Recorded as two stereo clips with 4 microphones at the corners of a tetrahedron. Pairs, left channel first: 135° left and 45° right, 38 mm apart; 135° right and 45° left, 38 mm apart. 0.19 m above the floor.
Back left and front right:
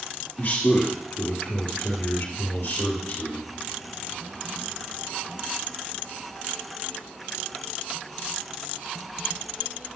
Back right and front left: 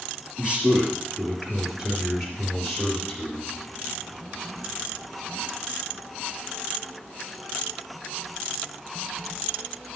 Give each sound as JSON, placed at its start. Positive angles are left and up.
{"t": 0.4, "sound": "a man speaking", "azimuth_deg": 105, "distance_m": 4.5}